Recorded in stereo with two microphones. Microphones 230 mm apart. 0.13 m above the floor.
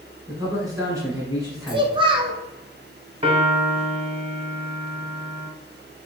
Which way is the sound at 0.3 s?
15° right (ahead or behind).